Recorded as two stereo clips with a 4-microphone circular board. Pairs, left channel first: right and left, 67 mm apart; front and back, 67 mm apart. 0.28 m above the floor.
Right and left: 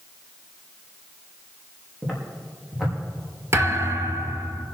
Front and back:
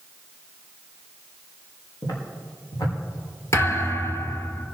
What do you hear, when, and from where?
2.0 s footsteps: 5° left, 6 m
3.5 s a thud: 45° left, 1.9 m